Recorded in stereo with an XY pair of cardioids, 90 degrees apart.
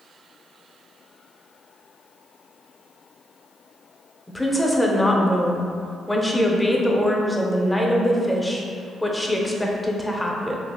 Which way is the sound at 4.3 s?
10° left.